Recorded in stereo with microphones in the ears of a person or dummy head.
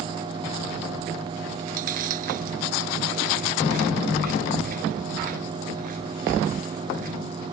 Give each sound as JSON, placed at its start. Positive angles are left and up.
{"t": 1.6, "sound": "chewing", "side_deg": -50}